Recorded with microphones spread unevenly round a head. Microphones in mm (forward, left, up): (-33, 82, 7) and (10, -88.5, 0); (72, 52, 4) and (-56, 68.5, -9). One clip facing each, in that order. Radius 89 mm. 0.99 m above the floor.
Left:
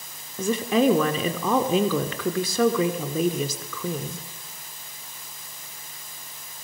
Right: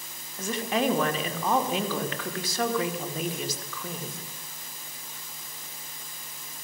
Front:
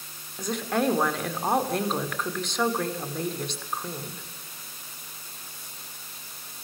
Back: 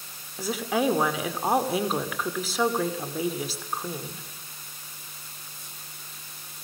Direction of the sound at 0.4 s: 85° left.